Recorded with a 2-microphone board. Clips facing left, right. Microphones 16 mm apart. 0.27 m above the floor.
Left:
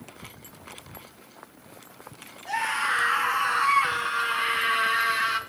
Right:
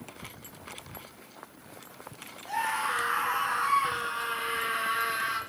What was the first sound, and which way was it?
A scream, 35° left (ahead or behind).